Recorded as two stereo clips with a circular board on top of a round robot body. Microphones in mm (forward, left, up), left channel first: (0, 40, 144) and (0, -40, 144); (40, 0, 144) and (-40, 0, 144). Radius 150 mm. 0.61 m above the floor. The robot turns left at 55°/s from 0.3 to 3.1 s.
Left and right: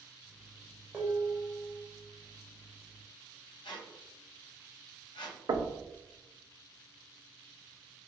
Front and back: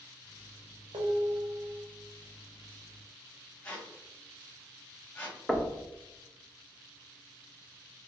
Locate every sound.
0.9 s dishes clattering: 165° right, 1.0 m; by 1.8 s 150° left, 1.0 m
3.6 s a squeak: 70° left, 1.0 m
5.5 s knocking: 90° right, 0.6 m